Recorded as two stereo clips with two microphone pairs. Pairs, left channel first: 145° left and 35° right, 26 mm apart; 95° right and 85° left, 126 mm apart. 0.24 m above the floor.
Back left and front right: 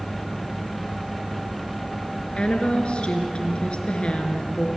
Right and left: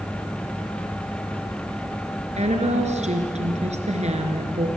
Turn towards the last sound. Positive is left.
turn(degrees=105)